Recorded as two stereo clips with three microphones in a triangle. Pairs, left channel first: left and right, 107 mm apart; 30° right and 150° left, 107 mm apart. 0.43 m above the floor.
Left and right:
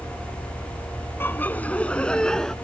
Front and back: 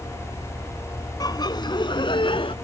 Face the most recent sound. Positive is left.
turn(degrees=5)